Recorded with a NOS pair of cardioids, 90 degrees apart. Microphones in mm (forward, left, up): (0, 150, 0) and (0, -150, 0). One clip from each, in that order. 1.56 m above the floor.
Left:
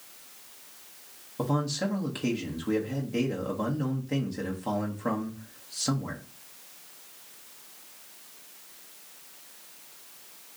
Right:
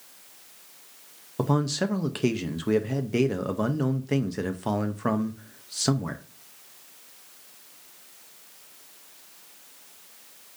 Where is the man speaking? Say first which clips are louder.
Right 3 dB; 35° right, 0.7 m.